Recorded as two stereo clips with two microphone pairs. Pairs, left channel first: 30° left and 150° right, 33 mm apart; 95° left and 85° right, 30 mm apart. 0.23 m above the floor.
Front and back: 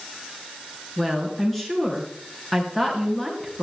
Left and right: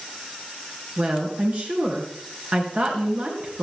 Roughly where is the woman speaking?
Ahead right.